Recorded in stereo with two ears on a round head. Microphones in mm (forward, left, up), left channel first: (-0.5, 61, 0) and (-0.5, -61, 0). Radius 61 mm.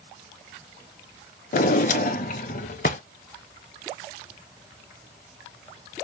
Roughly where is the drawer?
Left.